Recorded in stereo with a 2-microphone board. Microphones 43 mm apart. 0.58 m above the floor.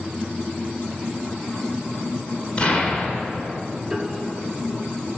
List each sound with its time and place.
2.6 s an explosion: 25° left (ahead or behind), 2.5 m
3.9 s a piano: 10° right (ahead or behind), 1.8 m